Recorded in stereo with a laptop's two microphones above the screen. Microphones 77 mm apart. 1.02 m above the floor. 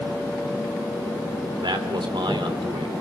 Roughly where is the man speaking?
Right.